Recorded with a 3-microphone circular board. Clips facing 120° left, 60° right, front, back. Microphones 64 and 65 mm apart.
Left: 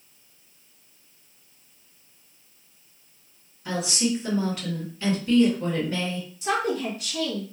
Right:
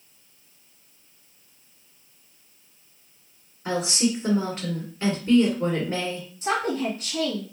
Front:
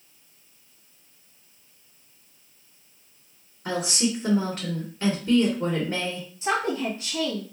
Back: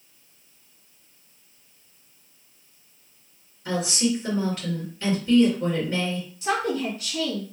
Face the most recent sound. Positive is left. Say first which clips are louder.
# right 1 dB, even
turn(degrees=-40)